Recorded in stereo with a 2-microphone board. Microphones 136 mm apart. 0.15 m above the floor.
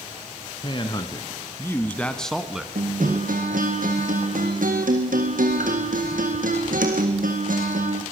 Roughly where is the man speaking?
Left.